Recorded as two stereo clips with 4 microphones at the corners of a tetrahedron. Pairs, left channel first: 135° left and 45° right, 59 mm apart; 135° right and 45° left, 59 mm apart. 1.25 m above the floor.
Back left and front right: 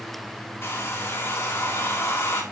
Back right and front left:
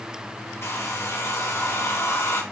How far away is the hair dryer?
About 1.9 m.